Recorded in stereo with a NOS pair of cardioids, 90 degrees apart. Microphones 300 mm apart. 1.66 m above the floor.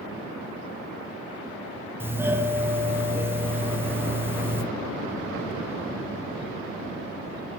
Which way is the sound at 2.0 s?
10° right.